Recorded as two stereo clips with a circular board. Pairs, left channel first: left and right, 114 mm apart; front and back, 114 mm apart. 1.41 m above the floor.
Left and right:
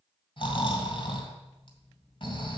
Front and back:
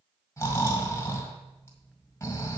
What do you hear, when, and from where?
0.4 s snoring: 60° left, 2 m